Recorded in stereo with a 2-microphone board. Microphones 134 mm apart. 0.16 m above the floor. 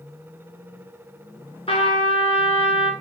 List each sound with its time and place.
1.7 s a trumpet: 45° left (ahead or behind), 1.3 m